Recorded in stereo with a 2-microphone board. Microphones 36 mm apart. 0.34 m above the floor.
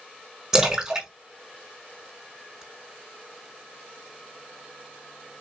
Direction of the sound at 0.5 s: 15° right (ahead or behind).